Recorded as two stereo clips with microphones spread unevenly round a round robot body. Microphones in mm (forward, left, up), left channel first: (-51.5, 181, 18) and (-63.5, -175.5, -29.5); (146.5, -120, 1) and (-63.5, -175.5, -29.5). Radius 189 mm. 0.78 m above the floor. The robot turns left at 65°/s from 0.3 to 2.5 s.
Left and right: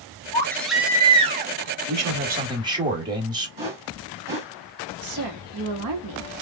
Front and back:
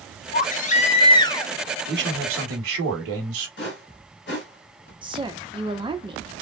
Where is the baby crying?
5° left, 0.5 m; by 1.5 s 70° right, 0.5 m.